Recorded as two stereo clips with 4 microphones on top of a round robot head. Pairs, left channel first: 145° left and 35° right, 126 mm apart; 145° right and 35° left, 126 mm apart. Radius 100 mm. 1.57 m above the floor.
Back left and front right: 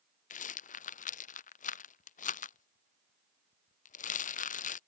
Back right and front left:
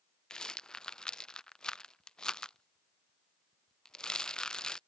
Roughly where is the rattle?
Behind left.